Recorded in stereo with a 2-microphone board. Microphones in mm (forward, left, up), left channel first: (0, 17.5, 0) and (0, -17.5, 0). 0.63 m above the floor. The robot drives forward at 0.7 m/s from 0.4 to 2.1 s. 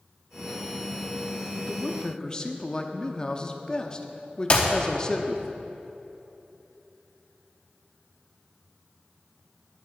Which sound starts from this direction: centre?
A man speaking, at 1.6 s.